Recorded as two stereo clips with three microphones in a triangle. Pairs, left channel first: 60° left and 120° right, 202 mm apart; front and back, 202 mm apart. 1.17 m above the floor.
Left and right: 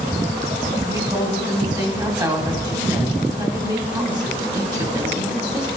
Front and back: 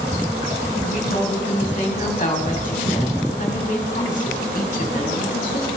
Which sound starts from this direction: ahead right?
A woman speaking, at 0.8 s.